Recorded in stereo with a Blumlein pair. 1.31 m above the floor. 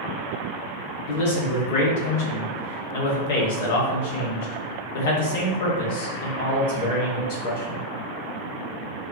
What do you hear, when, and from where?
1.1 s a man speaking: 50° left, 1.1 m